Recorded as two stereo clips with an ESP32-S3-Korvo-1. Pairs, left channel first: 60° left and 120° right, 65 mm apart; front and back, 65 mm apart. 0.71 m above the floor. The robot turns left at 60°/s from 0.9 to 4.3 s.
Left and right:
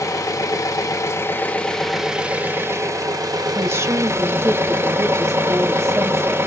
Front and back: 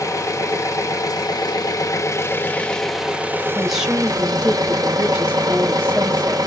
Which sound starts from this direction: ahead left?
An engine running, at 0.0 s.